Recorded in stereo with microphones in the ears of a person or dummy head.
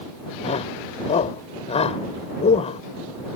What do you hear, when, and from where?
0.4 s a shout: 35° left (ahead or behind)